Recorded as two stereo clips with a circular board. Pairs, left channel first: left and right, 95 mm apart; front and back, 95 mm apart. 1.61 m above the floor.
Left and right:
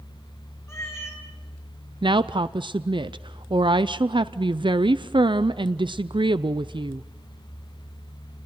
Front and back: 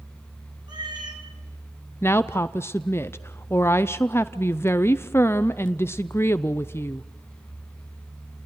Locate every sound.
0.7 s a cat meowing: 150° left, 4 m
2.0 s a woman speaking: 65° right, 0.5 m